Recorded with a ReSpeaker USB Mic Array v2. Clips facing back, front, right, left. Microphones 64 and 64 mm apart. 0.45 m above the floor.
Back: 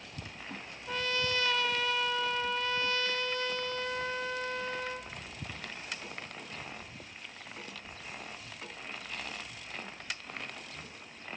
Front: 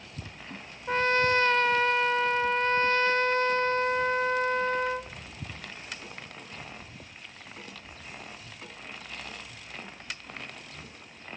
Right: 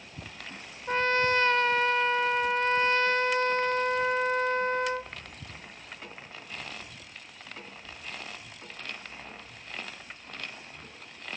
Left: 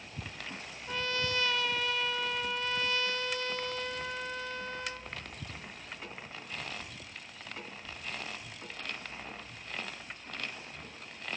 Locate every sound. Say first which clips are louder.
0.9 s a trumpet: front 9 dB, right 9 dB; 45° right, 0.6 m